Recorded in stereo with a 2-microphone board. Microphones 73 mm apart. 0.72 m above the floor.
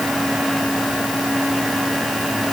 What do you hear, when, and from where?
Only background noise.